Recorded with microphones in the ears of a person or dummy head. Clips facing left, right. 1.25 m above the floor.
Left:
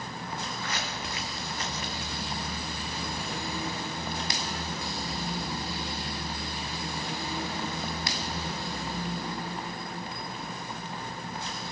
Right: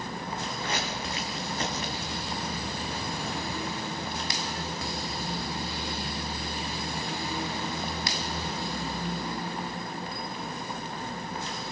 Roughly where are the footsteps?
Right.